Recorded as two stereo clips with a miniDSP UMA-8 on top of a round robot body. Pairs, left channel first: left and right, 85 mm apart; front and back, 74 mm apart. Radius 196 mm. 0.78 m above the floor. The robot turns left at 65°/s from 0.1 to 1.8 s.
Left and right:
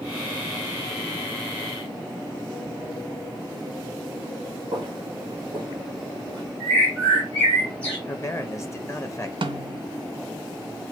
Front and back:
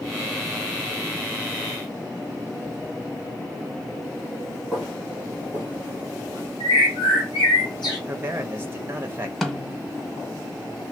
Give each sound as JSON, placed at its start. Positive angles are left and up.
{"t": 4.7, "sound": "footsteps", "azimuth_deg": -95, "distance_m": 1.0}
{"t": 6.6, "sound": "a bird", "azimuth_deg": 10, "distance_m": 1.4}
{"t": 8.1, "sound": "a man speaking", "azimuth_deg": 130, "distance_m": 1.0}
{"t": 9.4, "sound": "a snare drum", "azimuth_deg": -90, "distance_m": 0.7}